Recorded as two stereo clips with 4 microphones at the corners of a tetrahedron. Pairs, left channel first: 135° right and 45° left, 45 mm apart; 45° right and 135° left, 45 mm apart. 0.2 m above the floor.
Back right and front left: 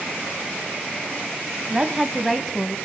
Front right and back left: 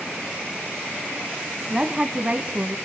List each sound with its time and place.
1.7 s a woman speaking: 90° left, 1.1 m; by 2.8 s 160° left, 1.4 m